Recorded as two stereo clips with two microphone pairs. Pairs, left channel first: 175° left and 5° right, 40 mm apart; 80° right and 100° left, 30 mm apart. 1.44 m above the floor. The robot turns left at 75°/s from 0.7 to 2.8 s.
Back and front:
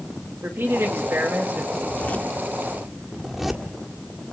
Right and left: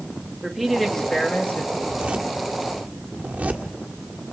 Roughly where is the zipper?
Behind.